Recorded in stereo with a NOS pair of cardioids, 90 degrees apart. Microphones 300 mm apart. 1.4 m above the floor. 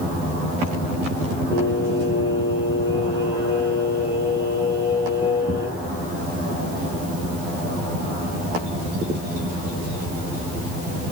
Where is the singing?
15° left, 1.7 m.